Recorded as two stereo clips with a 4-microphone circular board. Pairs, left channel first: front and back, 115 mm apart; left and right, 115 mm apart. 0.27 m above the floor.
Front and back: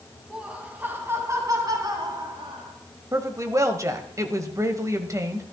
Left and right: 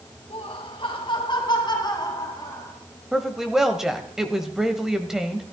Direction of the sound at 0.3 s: 100° left.